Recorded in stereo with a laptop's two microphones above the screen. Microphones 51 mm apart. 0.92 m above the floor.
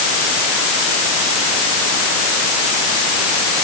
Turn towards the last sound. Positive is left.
No sound to turn to.